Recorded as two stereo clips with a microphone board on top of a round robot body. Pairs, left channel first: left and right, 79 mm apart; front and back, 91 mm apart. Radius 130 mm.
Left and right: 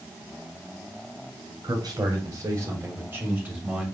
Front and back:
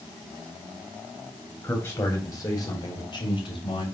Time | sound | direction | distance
1.6 | a man speaking | 60° right | 3.5 m